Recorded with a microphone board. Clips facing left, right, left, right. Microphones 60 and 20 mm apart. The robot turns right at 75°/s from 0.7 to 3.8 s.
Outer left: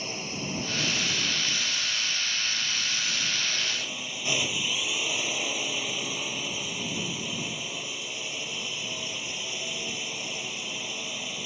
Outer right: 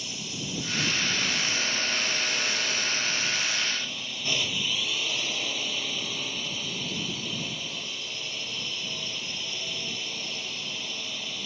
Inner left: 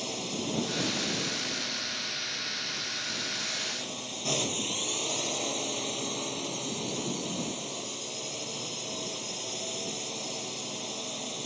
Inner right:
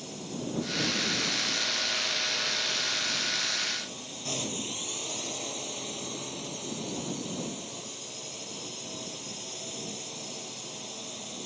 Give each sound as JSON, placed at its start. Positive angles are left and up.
{"t": 0.0, "sound": "a drone", "azimuth_deg": 140}